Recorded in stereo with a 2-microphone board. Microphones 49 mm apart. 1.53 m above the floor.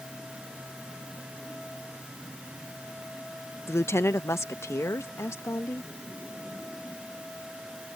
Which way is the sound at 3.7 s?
60° left (ahead or behind).